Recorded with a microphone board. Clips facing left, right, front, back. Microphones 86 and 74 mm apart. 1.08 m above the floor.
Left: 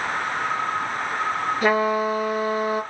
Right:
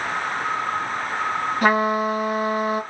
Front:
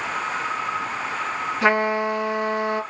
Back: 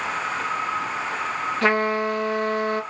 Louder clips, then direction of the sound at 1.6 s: Right 1 dB, front 1 dB; 80° right.